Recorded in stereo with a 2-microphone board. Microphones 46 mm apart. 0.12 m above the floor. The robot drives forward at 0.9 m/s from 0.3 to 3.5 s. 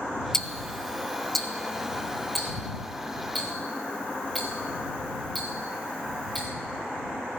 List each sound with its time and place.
0.3 s ticking: 10° left (ahead or behind), 0.5 m; by 6.5 s centre (ahead or behind), 3.5 m